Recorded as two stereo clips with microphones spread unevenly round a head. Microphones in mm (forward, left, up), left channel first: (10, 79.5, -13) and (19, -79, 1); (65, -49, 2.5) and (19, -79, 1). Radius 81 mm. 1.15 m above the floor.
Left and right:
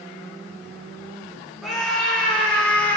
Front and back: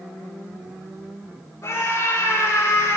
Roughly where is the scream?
Ahead.